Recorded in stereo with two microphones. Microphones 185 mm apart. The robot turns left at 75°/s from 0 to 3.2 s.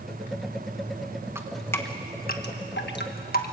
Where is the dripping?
15° right (ahead or behind), 1.5 m; by 3.5 s 55° left (ahead or behind), 1.5 m.